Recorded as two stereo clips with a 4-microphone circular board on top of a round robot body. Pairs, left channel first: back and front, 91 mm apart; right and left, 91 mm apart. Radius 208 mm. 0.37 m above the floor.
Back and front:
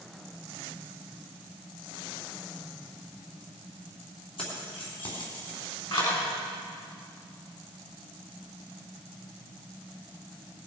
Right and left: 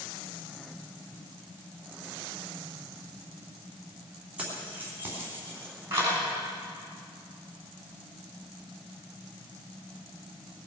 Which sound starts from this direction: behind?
Keys jangling, at 4.4 s.